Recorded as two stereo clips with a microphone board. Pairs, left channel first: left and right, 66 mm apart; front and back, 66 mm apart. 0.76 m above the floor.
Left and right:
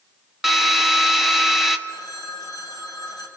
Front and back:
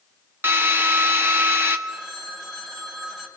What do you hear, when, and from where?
0.4 s a drill: 175° right, 1.2 m
1.9 s a phone ringing: 95° left, 3 m